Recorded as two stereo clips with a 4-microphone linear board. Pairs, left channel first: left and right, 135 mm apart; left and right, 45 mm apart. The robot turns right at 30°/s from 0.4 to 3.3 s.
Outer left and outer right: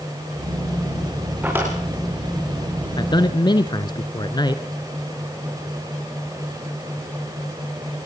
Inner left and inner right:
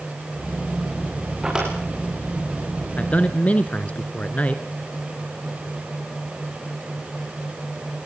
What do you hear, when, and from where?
1.4 s a drawer: 10° right (ahead or behind), 6.5 m; by 1.8 s 20° right (ahead or behind), 6.5 m
3.0 s a man speaking: 35° left (ahead or behind), 1.5 m